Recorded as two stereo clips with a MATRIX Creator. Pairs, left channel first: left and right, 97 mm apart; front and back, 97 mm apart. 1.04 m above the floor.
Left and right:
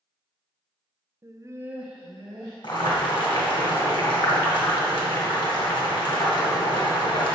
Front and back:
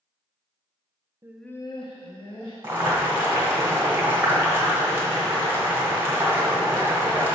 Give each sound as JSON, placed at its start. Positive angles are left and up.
{"t": 1.2, "sound": "laughter", "azimuth_deg": -135, "distance_m": 0.6}
{"t": 2.6, "sound": "boiling", "azimuth_deg": 115, "distance_m": 1.9}